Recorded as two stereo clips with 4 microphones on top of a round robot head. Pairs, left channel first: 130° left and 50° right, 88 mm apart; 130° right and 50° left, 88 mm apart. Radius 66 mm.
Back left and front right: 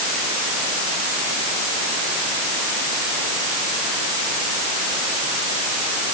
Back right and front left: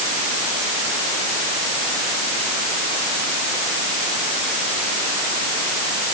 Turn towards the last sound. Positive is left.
No sound to turn to.